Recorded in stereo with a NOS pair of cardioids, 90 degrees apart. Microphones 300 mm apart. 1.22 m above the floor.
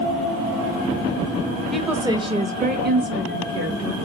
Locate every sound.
1.7 s a woman speaking: straight ahead, 0.8 m; by 4.0 s 50° right, 1.5 m